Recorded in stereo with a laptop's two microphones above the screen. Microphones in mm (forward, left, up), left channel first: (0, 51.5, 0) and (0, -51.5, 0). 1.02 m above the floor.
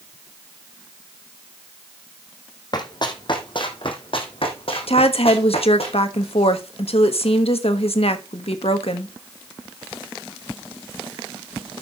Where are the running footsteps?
40° left (ahead or behind), 2.5 m; by 5.9 s 70° left (ahead or behind), 3.5 m.